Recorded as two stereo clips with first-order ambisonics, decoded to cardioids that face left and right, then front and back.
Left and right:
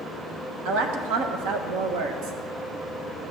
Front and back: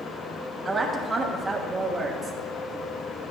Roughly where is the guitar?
I don't hear a guitar.